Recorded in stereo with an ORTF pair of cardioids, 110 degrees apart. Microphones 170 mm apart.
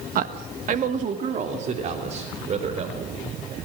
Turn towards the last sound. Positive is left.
turn(degrees=-40)